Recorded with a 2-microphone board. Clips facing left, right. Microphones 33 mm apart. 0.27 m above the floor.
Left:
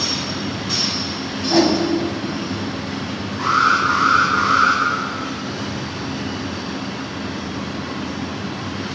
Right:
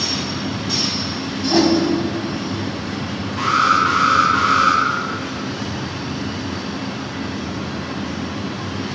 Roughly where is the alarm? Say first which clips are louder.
Right 1 dB; right.